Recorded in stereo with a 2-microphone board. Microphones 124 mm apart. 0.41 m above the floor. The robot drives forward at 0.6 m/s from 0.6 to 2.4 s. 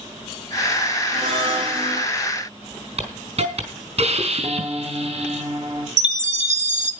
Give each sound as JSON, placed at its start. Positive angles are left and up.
{"t": 1.1, "sound": "a blender", "side_deg": -50, "distance_m": 6.5}
{"t": 3.0, "sound": "a hiss", "side_deg": -65, "distance_m": 4.0}
{"t": 4.4, "sound": "a piano", "side_deg": -50, "distance_m": 1.8}
{"t": 6.0, "sound": "a chime", "side_deg": -75, "distance_m": 1.9}